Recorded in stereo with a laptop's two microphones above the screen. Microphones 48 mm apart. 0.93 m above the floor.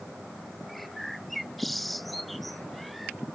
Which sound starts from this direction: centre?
A bird, at 0.7 s.